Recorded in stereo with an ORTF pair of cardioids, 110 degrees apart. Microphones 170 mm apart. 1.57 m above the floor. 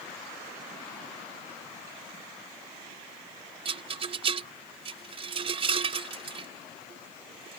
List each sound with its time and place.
3.6 s a rattle: 35° right